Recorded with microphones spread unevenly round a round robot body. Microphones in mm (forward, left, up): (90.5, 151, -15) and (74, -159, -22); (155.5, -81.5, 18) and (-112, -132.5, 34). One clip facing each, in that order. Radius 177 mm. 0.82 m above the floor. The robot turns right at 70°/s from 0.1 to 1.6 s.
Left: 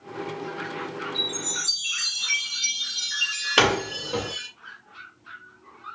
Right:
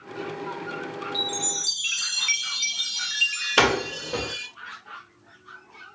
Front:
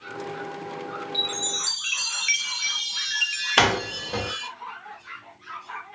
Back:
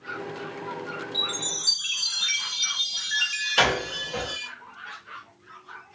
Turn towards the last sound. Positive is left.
turn(degrees=0)